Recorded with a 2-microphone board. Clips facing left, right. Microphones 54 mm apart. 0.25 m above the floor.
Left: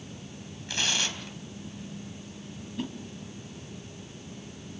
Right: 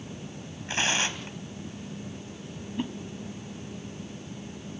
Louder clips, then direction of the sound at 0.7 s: Right 3 dB; 35° right (ahead or behind).